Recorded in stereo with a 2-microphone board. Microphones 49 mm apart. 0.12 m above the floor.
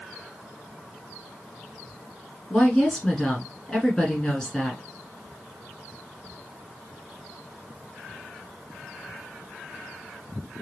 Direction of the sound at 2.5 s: 15° left (ahead or behind).